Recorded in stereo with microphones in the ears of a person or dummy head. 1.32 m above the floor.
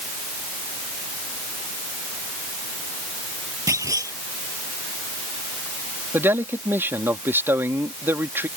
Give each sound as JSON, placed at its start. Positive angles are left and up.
{"t": 3.7, "sound": "a clunk", "side_deg": -20}
{"t": 6.1, "sound": "a man speaking", "side_deg": -10}